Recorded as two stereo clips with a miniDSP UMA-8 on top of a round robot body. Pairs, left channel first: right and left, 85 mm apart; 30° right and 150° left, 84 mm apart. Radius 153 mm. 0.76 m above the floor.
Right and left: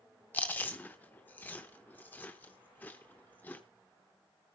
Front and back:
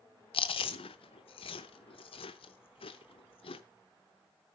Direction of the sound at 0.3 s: 20° right.